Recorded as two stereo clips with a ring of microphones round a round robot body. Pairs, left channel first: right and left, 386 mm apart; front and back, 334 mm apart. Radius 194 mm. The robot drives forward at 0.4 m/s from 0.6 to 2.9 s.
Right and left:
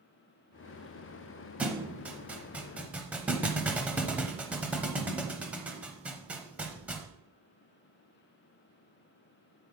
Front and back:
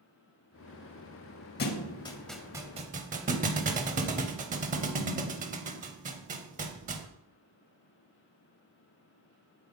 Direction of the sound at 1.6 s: 5° left.